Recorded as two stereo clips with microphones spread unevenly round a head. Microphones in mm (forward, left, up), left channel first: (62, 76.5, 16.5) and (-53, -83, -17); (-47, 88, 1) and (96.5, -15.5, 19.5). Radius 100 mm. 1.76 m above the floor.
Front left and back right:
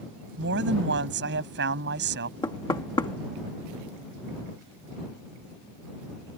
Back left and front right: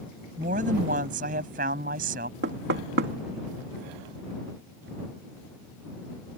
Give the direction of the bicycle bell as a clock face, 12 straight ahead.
No bicycle bell in this recording.